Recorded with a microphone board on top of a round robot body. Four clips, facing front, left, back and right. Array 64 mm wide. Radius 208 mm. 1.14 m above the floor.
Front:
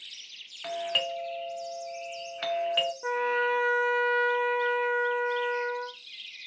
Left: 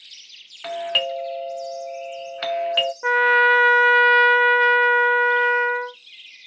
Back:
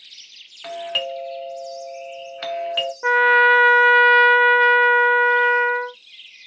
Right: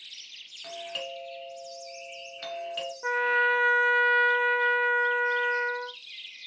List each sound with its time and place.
0.6 s a doorbell: 100° left, 1.3 m
3.0 s a trumpet: 145° left, 0.5 m